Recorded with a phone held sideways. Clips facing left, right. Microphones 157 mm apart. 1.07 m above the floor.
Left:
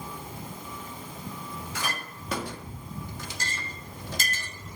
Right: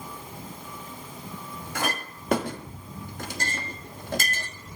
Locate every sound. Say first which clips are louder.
1.8 s a clink: right 7 dB; 55° right (ahead or behind), 1.0 m